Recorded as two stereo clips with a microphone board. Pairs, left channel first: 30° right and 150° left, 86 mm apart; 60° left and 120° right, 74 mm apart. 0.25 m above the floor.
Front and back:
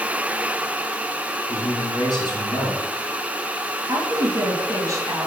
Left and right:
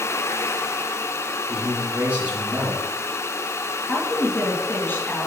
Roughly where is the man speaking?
Ahead right.